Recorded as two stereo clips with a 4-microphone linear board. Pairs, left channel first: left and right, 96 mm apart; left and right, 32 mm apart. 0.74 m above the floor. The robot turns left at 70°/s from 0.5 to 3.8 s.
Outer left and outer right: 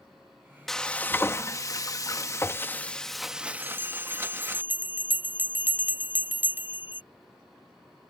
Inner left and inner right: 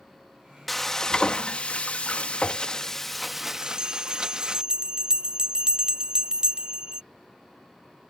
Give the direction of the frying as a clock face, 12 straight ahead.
6 o'clock.